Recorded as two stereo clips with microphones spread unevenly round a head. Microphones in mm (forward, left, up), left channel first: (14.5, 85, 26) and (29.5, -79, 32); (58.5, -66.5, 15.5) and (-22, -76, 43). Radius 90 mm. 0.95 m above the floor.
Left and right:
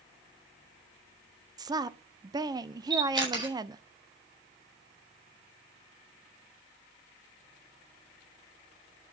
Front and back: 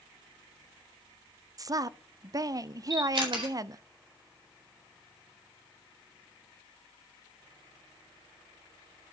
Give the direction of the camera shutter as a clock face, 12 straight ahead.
5 o'clock.